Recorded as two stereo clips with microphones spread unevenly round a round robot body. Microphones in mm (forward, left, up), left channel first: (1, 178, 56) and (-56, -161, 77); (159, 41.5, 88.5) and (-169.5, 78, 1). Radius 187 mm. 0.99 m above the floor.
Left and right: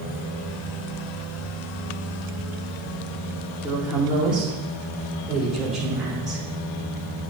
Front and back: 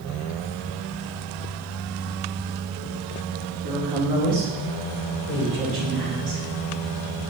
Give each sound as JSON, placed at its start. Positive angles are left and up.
{"t": 3.6, "sound": "a woman speaking", "azimuth_deg": 170, "distance_m": 3.5}